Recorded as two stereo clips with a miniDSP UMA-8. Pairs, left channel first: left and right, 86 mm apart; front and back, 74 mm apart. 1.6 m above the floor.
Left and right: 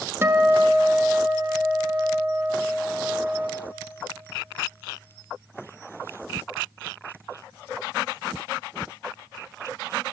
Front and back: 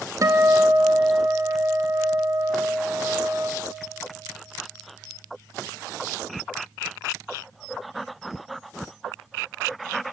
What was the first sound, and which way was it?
A guitar, 150° right.